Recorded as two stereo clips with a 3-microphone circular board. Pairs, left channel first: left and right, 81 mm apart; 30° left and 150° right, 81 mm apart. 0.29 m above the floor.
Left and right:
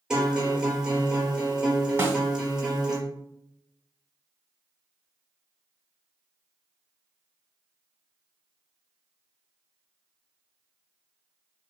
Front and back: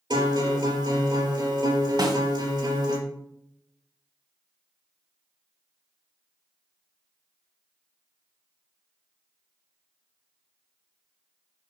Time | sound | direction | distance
0.1 | a guitar | 170° right | 4 m
2.0 | a snare drum | 150° right | 2 m